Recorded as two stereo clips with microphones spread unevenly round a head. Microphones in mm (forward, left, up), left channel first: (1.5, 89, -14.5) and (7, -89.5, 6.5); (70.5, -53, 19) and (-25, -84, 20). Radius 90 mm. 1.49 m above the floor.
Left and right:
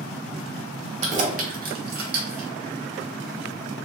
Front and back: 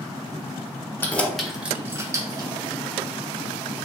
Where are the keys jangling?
50° right, 0.8 m; by 2.5 s 115° right, 1.1 m.